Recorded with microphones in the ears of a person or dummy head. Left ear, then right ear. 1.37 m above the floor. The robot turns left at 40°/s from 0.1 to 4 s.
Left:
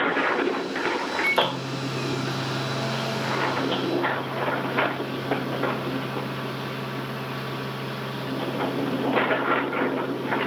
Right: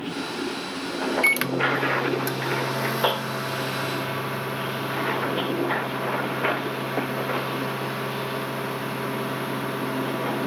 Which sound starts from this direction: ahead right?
A microwave, at 1.2 s.